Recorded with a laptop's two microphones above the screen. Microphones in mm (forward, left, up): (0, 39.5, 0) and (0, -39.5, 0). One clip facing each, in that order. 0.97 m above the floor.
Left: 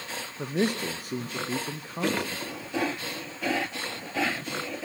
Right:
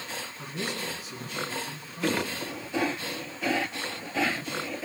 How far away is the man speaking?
About 0.5 m.